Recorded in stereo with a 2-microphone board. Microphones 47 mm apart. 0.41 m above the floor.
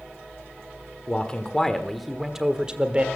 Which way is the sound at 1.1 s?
20° left (ahead or behind).